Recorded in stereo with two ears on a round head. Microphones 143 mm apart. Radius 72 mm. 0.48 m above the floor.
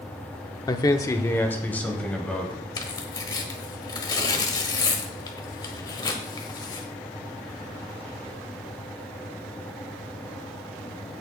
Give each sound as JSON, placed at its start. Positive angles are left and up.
{"t": 0.7, "sound": "a man speaking", "side_deg": 25, "distance_m": 0.7}
{"t": 2.8, "sound": "tearing paper", "side_deg": 25, "distance_m": 1.3}